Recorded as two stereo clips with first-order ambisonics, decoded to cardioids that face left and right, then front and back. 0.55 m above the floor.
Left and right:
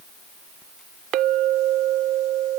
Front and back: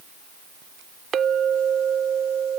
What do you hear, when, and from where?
1.1 s a clink: 120° right